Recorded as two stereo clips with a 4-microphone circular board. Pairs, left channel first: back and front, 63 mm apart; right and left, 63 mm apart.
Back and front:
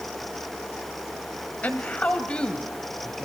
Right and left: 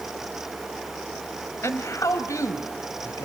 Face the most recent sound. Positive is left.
turn(degrees=-100)